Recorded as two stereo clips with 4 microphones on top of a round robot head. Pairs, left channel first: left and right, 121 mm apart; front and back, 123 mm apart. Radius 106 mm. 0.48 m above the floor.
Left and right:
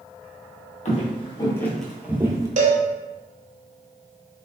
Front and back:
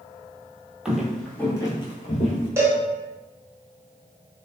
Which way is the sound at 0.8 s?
100° left.